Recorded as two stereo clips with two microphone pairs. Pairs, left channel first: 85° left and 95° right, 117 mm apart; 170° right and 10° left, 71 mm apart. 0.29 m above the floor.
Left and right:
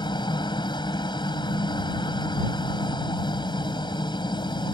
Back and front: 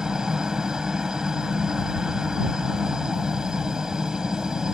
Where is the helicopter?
85° left.